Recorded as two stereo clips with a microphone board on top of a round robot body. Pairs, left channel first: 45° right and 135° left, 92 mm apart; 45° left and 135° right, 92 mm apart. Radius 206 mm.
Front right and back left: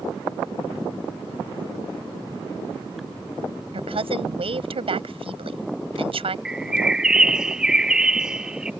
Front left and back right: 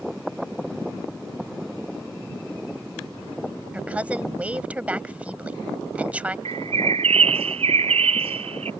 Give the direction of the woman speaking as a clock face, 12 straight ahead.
7 o'clock.